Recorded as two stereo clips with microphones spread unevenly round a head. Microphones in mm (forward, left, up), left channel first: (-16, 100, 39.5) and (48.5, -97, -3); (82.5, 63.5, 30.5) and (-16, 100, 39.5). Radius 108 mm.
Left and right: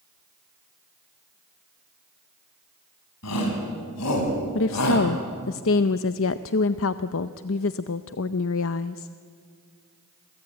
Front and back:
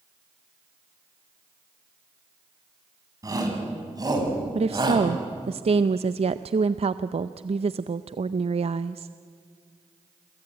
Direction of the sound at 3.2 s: 105° left.